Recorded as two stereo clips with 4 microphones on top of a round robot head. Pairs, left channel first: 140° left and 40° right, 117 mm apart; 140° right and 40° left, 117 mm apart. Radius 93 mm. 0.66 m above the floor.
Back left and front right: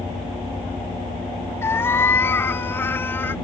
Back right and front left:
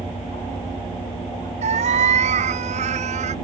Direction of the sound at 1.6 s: 70° left.